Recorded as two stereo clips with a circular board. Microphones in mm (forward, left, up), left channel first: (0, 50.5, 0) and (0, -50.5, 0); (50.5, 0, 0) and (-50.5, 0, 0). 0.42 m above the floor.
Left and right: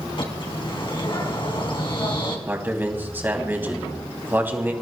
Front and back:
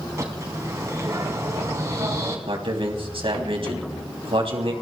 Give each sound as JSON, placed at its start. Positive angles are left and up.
{"t": 0.2, "sound": "a bird", "azimuth_deg": 120, "distance_m": 3.0}
{"t": 2.5, "sound": "a man speaking", "azimuth_deg": -160, "distance_m": 3.0}